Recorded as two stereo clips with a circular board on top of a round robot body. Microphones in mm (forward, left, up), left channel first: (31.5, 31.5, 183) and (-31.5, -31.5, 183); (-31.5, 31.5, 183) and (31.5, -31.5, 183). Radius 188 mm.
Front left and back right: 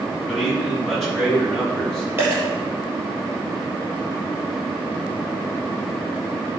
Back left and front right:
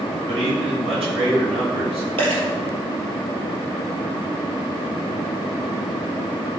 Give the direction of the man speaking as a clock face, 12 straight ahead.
1 o'clock.